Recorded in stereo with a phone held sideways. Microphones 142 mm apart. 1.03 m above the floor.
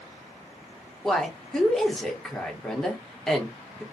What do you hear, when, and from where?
1.0 s a woman speaking: 5° left (ahead or behind), 0.8 m